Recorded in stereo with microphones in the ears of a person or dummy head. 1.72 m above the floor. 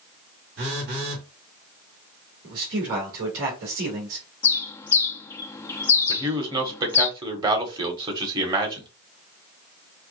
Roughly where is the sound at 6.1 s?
Right.